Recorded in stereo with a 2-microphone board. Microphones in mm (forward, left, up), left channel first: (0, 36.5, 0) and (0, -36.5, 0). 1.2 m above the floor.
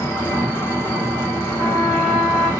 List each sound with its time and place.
0.0 s an engine running: 35° left (ahead or behind), 1.1 m
1.6 s a trumpet: 5° right (ahead or behind), 1.3 m